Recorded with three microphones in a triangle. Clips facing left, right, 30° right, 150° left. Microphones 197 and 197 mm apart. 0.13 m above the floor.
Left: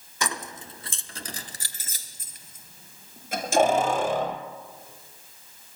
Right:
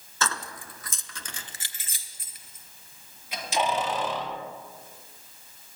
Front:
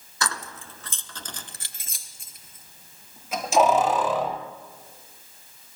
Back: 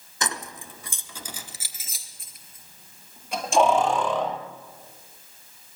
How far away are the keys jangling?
About 1.1 m.